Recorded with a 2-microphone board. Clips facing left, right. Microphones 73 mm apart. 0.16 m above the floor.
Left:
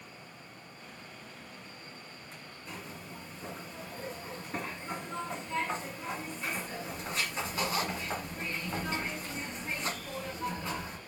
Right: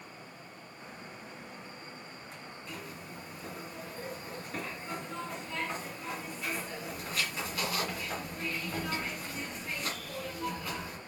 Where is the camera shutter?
I don't hear a camera shutter.